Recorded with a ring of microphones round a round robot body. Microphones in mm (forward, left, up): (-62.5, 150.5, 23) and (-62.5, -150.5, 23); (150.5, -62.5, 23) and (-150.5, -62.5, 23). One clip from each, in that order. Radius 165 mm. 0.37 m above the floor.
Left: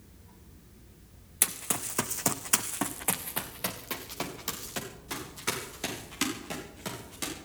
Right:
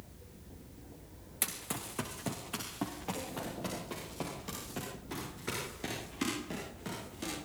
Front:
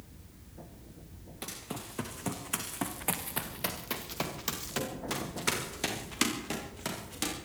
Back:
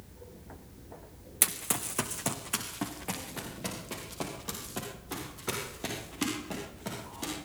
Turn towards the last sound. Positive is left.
turn(degrees=30)